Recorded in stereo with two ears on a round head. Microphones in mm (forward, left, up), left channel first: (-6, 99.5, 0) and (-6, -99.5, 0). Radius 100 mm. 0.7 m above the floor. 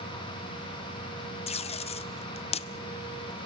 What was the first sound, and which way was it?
Tape being pulled, 25° left (ahead or behind).